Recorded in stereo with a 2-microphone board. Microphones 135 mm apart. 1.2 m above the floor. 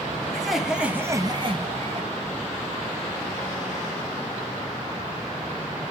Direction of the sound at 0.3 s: Centre (ahead or behind).